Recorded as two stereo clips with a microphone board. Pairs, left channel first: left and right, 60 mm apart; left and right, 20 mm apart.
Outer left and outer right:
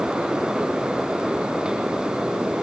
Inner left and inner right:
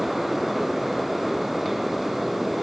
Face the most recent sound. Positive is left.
No sound to turn to.